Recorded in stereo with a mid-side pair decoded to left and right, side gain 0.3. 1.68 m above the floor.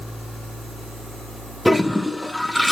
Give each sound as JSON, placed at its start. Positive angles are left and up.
{"t": 1.6, "sound": "a toilet flushing", "azimuth_deg": 5, "distance_m": 2.5}